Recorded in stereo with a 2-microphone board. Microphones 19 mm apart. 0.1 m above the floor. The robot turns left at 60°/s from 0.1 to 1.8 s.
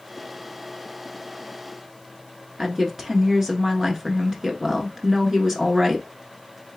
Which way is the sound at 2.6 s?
15° right (ahead or behind).